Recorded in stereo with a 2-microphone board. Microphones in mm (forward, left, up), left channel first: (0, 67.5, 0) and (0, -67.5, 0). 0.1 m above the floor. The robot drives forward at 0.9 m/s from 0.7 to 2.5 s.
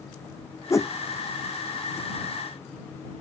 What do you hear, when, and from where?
0.7 s a whoosh: 25° left (ahead or behind)